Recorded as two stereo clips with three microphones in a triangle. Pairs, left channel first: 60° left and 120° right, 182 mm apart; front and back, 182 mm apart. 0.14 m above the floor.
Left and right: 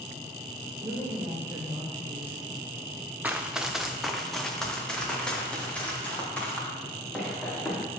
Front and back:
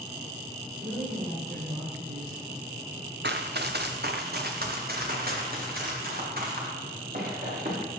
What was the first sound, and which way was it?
A woman speaking, 165° left.